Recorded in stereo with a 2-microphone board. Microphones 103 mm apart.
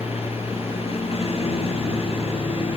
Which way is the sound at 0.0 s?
70° left (ahead or behind).